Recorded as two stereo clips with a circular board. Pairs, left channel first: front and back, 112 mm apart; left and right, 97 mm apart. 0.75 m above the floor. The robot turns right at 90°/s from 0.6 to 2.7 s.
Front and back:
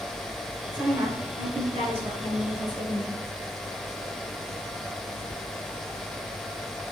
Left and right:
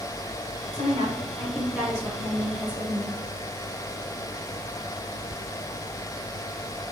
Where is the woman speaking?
100° left, 2.5 m; by 3.2 s 85° right, 2.5 m.